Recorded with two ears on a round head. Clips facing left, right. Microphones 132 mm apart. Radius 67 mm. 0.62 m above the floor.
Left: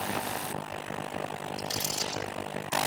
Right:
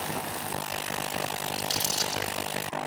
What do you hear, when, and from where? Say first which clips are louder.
1.6 s crumpling: right 2 dB; 30° right (ahead or behind), 8 m